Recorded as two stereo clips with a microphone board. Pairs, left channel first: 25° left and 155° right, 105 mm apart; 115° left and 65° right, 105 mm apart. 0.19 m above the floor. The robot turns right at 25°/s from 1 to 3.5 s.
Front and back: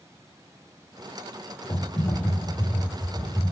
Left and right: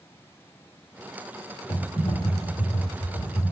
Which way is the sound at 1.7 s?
65° left.